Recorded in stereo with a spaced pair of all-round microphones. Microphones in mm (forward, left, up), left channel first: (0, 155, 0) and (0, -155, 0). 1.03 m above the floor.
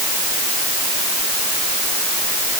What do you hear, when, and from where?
Only background noise.